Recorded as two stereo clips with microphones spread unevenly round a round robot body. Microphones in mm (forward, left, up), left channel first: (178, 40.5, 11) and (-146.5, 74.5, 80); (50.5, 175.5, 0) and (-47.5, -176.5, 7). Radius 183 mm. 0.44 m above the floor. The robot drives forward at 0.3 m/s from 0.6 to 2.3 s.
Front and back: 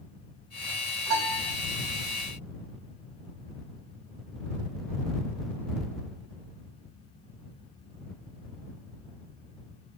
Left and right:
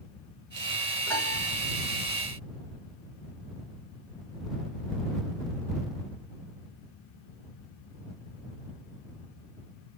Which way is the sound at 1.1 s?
160° left.